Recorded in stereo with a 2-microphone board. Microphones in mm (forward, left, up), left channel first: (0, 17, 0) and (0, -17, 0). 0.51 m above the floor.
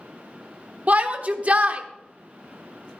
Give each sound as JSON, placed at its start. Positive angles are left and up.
{"t": 0.9, "sound": "a shout", "side_deg": -40, "distance_m": 1.1}